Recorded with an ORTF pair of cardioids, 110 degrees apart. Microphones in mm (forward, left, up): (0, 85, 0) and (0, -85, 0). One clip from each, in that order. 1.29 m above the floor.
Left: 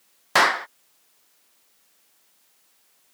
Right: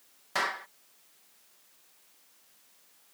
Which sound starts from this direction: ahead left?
A clap, at 0.3 s.